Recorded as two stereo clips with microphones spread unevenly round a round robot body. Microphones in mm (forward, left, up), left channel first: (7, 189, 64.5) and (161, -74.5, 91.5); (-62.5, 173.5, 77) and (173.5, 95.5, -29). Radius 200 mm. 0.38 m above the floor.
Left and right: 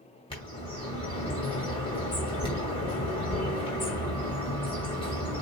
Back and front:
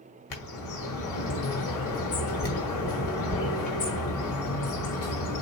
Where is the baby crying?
I don't hear a baby crying.